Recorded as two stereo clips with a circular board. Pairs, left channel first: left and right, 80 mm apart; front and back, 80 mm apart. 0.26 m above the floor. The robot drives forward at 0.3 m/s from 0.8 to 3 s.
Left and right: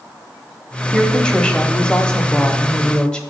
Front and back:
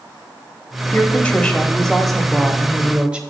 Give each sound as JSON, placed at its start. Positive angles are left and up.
{"t": 0.9, "sound": "a woman speaking", "azimuth_deg": 30, "distance_m": 1.1}